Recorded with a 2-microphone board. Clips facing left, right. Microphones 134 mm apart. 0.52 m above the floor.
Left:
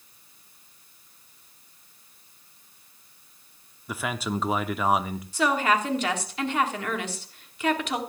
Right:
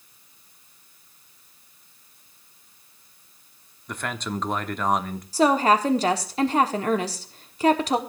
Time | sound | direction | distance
3.9 | a man speaking | 5° left (ahead or behind) | 0.7 m
5.3 | a woman speaking | 35° right (ahead or behind) | 1.3 m